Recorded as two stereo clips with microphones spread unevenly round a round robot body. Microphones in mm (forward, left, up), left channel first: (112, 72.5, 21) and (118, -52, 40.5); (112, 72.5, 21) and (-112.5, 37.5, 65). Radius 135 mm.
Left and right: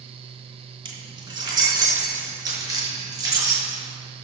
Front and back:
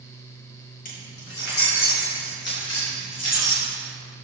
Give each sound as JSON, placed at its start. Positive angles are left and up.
{"t": 0.8, "sound": "keys jangling", "azimuth_deg": -40, "distance_m": 3.0}